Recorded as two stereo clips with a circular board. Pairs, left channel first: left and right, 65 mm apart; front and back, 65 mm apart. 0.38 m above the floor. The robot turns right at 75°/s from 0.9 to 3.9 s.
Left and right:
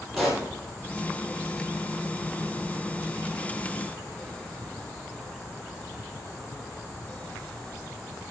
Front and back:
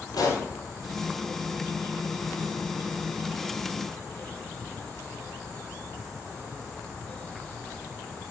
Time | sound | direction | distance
0.1 | a pop | straight ahead | 2.5 m